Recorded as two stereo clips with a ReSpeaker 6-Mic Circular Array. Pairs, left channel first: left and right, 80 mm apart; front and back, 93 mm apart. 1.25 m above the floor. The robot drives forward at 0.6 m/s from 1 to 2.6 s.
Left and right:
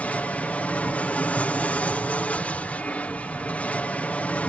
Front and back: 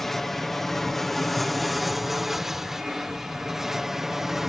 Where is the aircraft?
80° left; by 4.5 s 100° left.